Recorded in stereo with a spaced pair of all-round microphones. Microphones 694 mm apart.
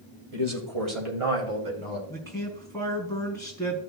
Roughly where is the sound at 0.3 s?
Right.